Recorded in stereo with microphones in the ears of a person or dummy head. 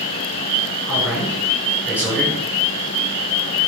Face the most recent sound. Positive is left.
turn(degrees=10)  # may be behind; listen again after turning